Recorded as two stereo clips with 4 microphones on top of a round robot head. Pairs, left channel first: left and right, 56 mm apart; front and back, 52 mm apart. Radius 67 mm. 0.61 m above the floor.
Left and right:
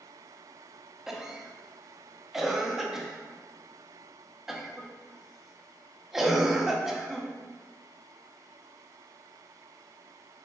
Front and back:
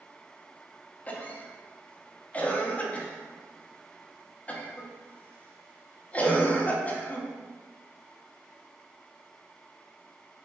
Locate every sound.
1.1 s a cough: 10° right, 0.8 m